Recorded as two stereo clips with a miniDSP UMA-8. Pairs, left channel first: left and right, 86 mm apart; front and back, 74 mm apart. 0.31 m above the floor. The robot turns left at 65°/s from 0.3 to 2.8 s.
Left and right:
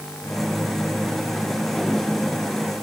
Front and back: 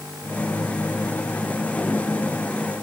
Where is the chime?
No chime in this recording.